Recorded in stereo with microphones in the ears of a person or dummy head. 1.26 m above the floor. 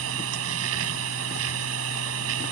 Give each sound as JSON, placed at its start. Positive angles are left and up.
{"t": 0.0, "sound": "a machine running", "side_deg": -85}